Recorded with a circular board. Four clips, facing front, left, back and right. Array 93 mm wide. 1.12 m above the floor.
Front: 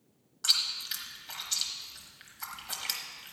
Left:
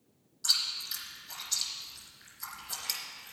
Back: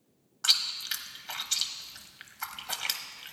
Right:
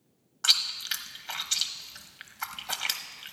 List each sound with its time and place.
0.4 s chewing: 110° right, 1.0 m